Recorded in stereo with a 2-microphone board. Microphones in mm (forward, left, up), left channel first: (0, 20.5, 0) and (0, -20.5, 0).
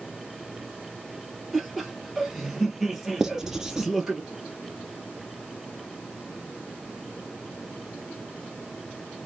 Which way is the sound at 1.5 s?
5° right (ahead or behind).